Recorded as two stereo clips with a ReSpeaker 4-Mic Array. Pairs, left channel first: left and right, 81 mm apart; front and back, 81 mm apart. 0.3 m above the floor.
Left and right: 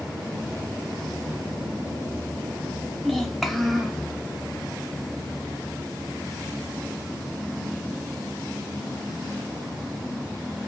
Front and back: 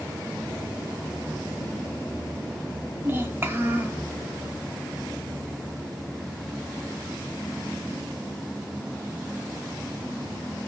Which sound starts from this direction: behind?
A child speaking, at 3.0 s.